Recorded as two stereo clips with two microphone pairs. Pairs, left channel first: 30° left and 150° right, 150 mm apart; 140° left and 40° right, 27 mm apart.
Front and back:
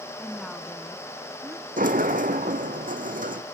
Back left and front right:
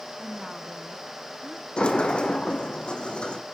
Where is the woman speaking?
35° right, 1.1 m; by 1.7 s 90° right, 1.8 m.